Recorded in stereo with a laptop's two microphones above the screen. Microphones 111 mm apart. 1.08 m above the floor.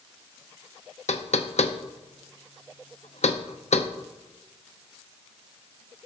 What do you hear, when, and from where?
1.1 s knocking: 75° left (ahead or behind), 0.6 m